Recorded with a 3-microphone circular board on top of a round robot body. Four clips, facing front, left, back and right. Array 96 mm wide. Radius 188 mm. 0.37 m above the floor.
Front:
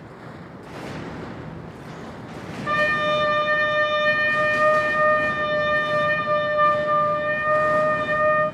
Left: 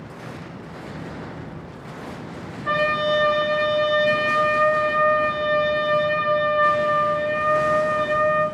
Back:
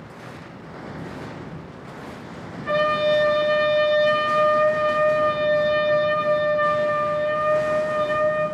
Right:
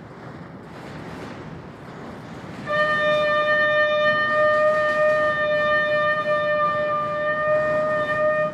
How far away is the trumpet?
About 2.5 m.